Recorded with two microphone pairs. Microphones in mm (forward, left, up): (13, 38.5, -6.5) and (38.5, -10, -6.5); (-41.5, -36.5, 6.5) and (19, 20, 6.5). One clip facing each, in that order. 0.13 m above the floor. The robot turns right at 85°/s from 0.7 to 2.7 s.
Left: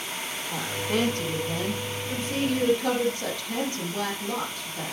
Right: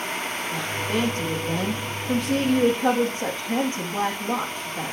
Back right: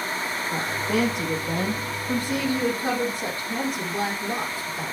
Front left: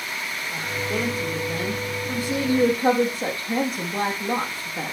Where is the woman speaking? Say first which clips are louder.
Even, back right 2 dB; 165° right, 4 m; by 4.9 s 5° left, 4 m.